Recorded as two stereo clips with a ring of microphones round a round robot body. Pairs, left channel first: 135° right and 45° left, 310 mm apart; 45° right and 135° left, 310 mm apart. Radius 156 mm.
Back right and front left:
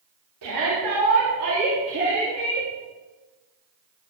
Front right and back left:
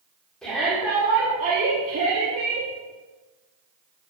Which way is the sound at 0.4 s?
45° left.